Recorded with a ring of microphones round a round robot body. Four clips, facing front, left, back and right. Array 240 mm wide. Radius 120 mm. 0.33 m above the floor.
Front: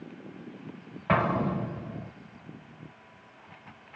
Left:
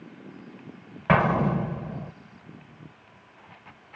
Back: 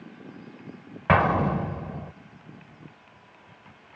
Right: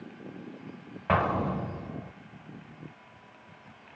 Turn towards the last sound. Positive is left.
turn(degrees=150)